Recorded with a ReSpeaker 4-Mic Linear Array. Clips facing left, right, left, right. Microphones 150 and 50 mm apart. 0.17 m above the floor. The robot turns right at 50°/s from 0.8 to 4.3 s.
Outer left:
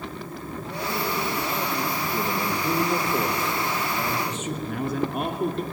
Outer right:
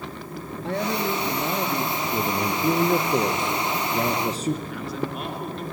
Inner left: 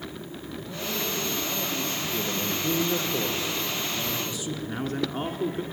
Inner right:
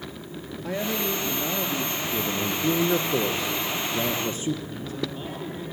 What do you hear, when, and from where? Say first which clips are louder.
0.6 s a man speaking: outer right 4 dB, inner right 5 dB; 85° right, 3 m; by 2.0 s 25° right, 3 m
2.1 s a man speaking: outer right 3 dB, inner right 3 dB; 145° right, 2.5 m; by 4.5 s 35° right, 2.5 m
4.7 s a man speaking: outer left 3 dB, inner left 3 dB; 50° left (ahead or behind), 2.0 m